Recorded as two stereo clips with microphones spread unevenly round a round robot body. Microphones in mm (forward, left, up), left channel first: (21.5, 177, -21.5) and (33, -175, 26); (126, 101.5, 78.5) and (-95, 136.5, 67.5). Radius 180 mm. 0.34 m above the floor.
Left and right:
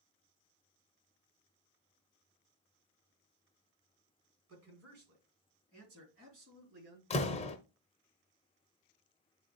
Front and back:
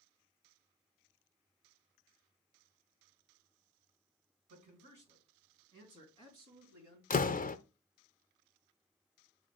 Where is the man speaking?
140° right, 3 m; by 7.0 s 150° right, 4.5 m.